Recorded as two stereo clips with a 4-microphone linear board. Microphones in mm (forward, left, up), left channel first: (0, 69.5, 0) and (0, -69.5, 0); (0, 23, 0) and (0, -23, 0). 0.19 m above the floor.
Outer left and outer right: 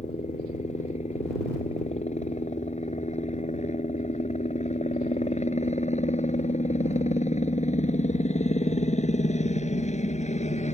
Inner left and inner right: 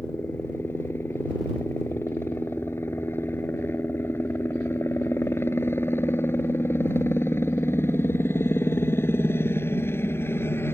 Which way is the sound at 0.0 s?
55° left (ahead or behind).